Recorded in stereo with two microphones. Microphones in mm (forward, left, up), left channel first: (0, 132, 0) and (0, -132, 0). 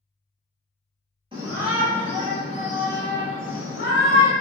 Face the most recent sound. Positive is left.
turn(degrees=60)  # may be behind; listen again after turning